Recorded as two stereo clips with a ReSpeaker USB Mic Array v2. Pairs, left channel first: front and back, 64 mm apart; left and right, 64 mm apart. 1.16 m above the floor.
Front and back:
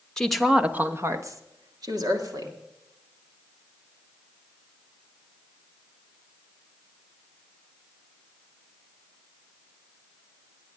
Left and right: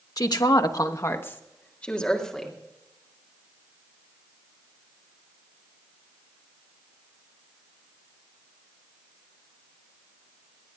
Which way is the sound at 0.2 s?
80° left.